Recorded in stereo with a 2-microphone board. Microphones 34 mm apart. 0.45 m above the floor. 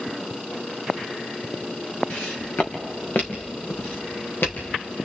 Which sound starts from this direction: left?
Footsteps, at 2.1 s.